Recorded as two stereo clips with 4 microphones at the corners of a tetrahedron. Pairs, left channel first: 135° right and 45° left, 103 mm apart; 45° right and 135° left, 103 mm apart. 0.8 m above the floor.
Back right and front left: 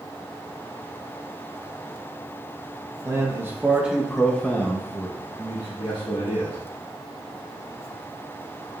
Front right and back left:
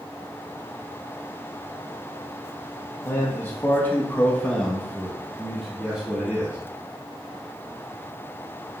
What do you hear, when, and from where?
3.0 s a man speaking: 5° left, 1.0 m; by 6.6 s 150° right, 1.4 m